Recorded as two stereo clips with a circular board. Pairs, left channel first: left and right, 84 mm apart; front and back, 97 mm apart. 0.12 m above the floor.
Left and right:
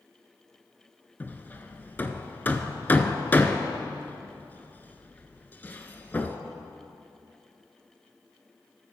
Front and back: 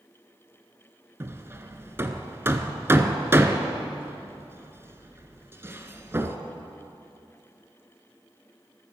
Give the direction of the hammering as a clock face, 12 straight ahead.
7 o'clock.